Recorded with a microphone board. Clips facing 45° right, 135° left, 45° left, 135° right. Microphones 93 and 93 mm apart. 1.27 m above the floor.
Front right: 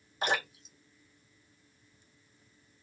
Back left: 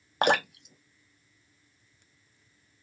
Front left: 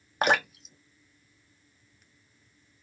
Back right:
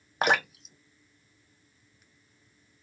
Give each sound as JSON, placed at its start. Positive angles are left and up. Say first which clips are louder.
{"t": 0.2, "sound": "dripping", "louder": "back left 7 dB, front left 1 dB", "azimuth_deg": 135, "distance_m": 0.6}